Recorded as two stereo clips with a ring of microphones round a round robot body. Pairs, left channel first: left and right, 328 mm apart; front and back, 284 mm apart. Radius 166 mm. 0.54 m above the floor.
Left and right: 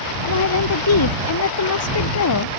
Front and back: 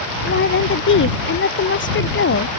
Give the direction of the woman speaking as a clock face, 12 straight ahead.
10 o'clock.